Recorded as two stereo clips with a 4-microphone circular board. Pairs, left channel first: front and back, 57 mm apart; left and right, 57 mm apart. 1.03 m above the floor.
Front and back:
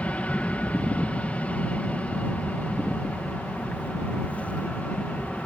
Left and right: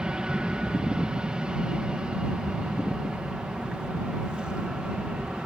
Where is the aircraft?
30° right.